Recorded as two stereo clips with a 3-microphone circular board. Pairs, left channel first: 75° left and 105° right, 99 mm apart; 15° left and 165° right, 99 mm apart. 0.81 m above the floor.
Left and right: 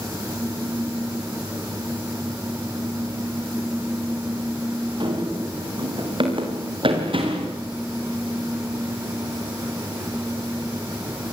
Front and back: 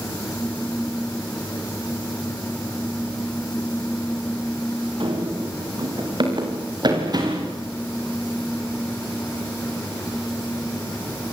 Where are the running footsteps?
135° right, 9 m; by 7.5 s 120° right, 6.5 m.